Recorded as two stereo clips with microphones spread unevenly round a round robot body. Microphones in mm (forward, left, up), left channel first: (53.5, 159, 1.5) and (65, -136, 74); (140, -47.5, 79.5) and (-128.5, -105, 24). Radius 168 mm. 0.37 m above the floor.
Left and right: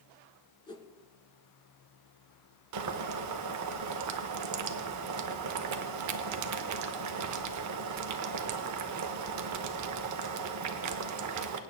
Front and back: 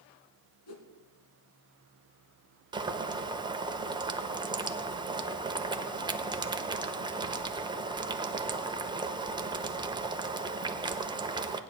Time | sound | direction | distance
0.7 | a whoosh | 15° left | 1.5 m
2.7 | boiling | 110° right | 0.9 m